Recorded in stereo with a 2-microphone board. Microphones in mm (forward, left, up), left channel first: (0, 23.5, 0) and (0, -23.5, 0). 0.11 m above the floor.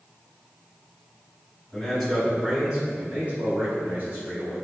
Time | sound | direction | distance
1.7 | a man speaking | 10° left (ahead or behind) | 1.8 m